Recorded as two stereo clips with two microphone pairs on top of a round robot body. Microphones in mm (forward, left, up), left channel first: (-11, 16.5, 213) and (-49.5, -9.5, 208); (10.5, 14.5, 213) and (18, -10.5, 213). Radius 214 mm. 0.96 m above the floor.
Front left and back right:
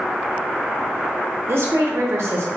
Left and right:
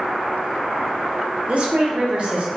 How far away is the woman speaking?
About 0.8 m.